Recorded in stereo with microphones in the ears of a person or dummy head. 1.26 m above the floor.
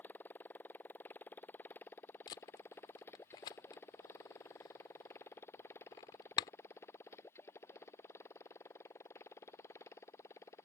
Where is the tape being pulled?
15° left (ahead or behind).